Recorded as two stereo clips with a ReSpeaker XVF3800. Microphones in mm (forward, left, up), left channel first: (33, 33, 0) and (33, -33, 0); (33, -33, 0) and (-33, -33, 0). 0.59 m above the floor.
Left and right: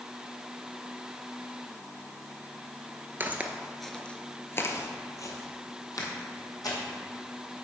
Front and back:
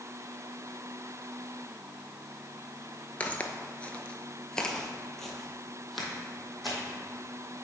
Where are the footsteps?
55° right, 0.6 m; by 6.8 s 90° left, 1.7 m.